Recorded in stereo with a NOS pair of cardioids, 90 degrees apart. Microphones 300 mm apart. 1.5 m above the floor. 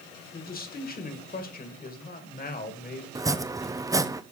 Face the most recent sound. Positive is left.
turn(degrees=-10)